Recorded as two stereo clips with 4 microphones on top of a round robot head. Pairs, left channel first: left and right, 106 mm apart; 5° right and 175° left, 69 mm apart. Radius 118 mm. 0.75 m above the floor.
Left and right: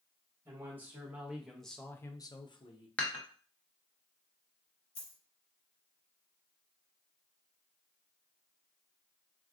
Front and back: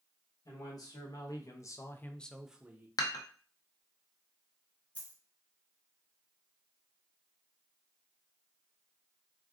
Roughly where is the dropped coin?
Ahead left.